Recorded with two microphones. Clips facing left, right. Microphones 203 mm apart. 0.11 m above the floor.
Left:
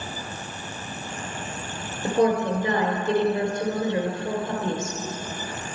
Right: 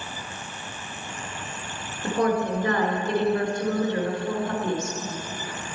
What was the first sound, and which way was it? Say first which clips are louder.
A woman speaking: left 3 dB; 20° left (ahead or behind).